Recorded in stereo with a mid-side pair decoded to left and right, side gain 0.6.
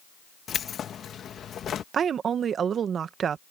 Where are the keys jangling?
40° left.